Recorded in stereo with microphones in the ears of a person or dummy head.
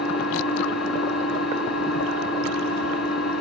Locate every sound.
0.0 s an engine running: 65° left (ahead or behind), 6 m